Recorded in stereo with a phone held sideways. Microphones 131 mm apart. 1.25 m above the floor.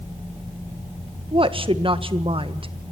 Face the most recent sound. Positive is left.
turn(degrees=-40)  # may be behind; listen again after turning